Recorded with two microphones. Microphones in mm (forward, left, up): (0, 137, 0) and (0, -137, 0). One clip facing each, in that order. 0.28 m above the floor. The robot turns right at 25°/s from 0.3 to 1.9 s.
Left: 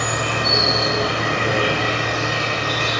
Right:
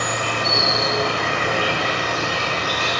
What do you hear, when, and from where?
0.0 s an insect: 110° left, 2 m; by 3.0 s 150° left, 2 m